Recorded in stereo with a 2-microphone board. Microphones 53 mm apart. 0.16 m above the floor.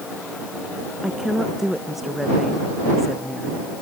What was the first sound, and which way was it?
A woman speaking, 10° right (ahead or behind).